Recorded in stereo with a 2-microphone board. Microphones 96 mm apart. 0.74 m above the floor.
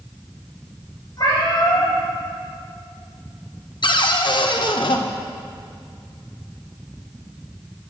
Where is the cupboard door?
55° left (ahead or behind), 0.5 m.